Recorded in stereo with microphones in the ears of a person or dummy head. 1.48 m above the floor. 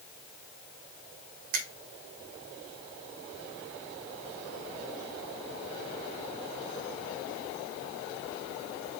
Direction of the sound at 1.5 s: 50° right (ahead or behind).